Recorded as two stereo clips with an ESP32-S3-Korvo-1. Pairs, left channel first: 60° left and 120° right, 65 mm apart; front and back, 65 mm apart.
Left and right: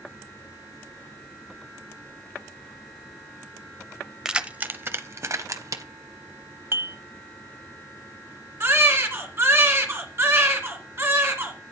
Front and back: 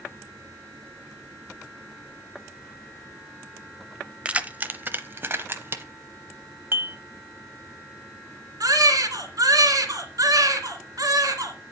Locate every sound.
4.2 s keys jangling: 175° left, 0.6 m; by 5.8 s 135° right, 1.2 m
6.7 s dishes clattering: 145° right, 1.0 m
8.6 s a baby crying: 170° right, 2.5 m